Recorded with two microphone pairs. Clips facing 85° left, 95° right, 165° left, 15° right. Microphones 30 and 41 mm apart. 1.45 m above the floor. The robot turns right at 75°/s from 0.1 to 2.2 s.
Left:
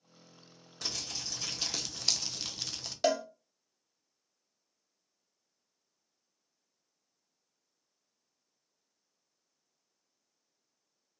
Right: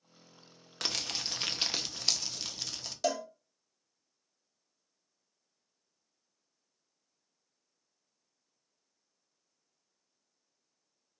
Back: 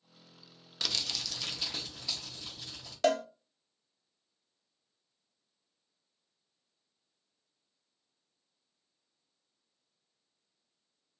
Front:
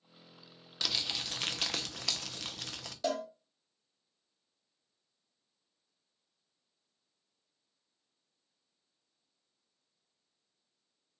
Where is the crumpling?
105° right, 0.6 m; by 2.9 s straight ahead, 0.6 m.